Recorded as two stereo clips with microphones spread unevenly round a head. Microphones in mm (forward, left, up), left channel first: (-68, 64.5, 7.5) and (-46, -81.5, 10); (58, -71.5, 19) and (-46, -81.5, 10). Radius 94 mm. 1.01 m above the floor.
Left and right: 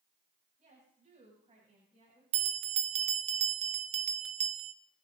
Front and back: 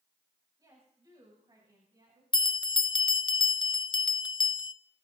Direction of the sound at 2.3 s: 35° right.